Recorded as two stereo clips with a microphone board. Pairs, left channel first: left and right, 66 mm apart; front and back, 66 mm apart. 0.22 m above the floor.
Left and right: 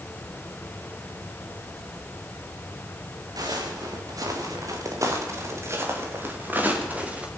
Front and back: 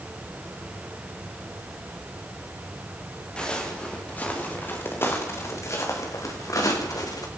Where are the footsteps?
75° right, 6 m; by 7.3 s 20° right, 5.5 m.